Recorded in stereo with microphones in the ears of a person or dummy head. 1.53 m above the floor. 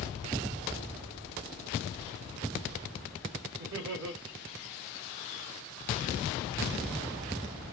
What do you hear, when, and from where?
3.6 s laughter: 70° right (ahead or behind), 2 m